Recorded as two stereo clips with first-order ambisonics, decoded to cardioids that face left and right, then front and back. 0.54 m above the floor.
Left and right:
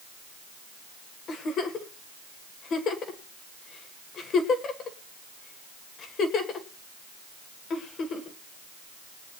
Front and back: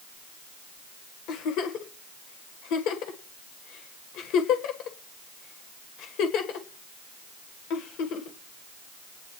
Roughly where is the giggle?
Ahead left.